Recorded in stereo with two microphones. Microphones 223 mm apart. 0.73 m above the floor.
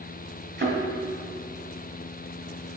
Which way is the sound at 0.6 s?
50° right (ahead or behind).